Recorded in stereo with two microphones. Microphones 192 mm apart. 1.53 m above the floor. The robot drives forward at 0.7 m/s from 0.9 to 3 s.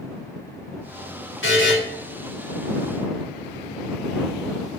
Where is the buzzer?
70° left (ahead or behind), 1.3 m; by 1.7 s 75° left (ahead or behind), 1.3 m.